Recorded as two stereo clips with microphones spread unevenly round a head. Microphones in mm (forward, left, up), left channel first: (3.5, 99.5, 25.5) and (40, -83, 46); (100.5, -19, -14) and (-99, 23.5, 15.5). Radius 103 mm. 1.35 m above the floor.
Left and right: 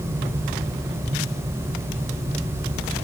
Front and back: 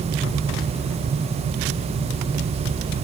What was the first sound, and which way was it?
Only background noise.